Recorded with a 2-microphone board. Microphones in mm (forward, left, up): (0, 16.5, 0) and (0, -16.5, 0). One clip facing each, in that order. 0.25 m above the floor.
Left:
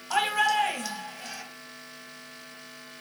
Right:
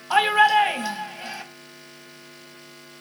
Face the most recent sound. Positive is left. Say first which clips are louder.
# right 7 dB
turn(degrees=-25)  # may be behind; listen again after turning